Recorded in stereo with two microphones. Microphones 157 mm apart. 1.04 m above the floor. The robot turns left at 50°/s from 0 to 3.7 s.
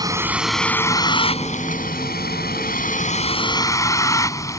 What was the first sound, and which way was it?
A vehicle, 155° right.